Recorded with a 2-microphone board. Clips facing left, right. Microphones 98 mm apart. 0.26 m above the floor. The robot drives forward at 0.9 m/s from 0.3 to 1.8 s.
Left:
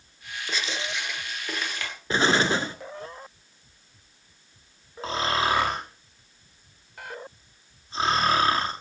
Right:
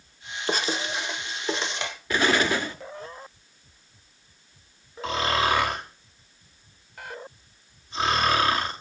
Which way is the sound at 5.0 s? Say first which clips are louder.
Right 1 dB; 30° left (ahead or behind).